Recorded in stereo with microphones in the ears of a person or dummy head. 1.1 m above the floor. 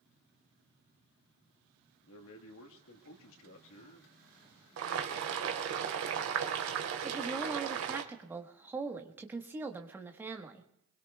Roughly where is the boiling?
Right.